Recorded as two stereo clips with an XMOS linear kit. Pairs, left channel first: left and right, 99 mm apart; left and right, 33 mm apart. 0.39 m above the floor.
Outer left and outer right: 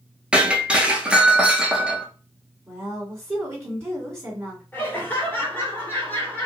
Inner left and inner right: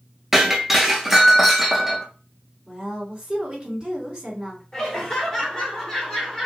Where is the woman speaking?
25° right (ahead or behind), 1.8 m.